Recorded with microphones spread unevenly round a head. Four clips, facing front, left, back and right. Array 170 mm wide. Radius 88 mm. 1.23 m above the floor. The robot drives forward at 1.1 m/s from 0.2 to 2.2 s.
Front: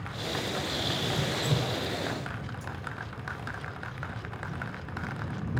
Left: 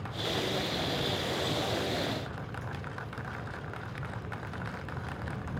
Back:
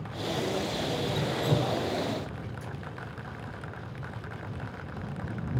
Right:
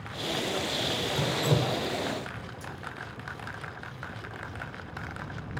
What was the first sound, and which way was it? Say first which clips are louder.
Dripping: right 5 dB, back 4 dB; 120° right.